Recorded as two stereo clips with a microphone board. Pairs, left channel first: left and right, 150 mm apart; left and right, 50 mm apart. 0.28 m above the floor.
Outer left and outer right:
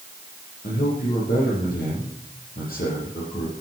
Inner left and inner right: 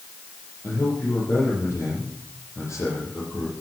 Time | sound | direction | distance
0.6 | a man speaking | 75° left (ahead or behind) | 8.5 m